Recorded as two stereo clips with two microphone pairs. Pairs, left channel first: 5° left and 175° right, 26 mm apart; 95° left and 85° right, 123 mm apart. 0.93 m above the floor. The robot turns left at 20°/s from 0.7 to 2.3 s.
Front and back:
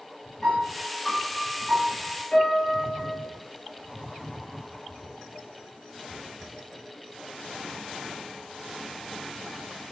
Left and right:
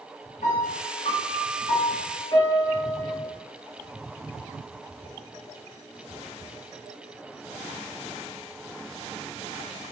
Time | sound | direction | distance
0.4 | a piano | 85° left | 0.9 m